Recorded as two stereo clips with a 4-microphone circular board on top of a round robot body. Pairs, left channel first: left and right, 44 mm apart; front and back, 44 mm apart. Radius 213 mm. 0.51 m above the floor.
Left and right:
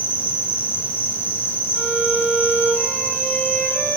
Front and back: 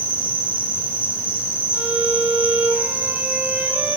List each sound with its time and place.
0.0 s an insect: 125° left, 6 m
1.7 s a violin: 130° left, 5 m